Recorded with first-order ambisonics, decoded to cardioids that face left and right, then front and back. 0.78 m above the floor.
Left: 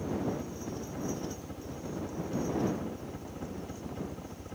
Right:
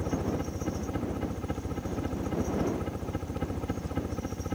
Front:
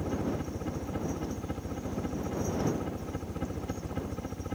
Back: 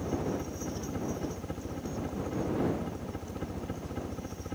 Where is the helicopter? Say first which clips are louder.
Right 2 dB, even; 75° right.